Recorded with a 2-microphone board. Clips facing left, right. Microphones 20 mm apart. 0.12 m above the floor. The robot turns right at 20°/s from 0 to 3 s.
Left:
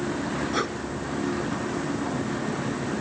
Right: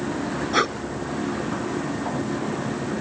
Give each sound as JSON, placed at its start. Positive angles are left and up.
{"t": 0.5, "sound": "breathing", "side_deg": -25}